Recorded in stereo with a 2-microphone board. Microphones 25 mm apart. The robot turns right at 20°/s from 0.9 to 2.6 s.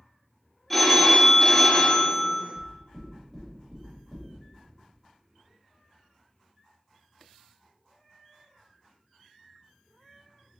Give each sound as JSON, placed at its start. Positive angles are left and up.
{"t": 0.7, "sound": "a phone ringing", "azimuth_deg": 10, "distance_m": 0.6}
{"t": 2.5, "sound": "knocking", "side_deg": -10, "distance_m": 1.3}